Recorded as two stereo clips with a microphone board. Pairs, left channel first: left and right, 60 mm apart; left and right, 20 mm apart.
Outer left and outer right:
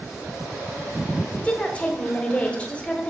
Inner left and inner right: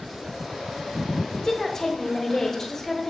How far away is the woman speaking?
About 1.0 m.